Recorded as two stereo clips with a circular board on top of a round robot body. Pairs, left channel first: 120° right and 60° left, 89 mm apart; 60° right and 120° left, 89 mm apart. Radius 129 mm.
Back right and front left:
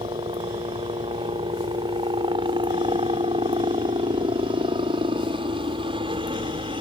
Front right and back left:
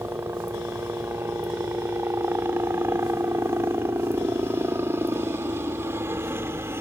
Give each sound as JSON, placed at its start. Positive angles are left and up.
{"t": 0.0, "sound": "a helicopter", "azimuth_deg": 60}